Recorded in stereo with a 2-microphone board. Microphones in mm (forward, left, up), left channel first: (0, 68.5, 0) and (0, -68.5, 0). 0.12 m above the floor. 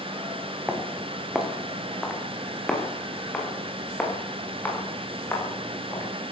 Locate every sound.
0.7 s footsteps: 10° right (ahead or behind), 3.5 m; by 6.1 s 15° left (ahead or behind), 7 m